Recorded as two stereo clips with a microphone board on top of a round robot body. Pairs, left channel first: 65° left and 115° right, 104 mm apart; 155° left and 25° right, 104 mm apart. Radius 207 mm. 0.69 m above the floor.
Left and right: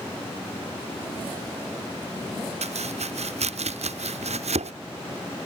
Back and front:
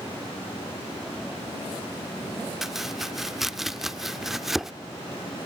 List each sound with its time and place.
2.6 s chopping: 110° right